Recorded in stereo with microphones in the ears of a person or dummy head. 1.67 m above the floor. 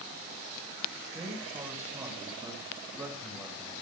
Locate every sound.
1.1 s a man speaking: 15° right (ahead or behind), 8 m; by 3.8 s 10° right (ahead or behind), 9.5 m